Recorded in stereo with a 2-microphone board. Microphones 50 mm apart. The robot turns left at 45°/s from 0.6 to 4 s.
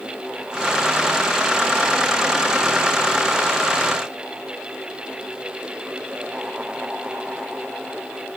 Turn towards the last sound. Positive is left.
No sound to turn to.